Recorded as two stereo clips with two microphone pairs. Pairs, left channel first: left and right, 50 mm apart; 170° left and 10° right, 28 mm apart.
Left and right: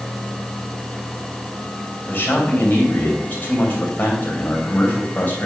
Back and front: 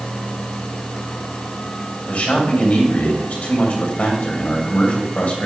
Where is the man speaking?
150° left, 2.5 m.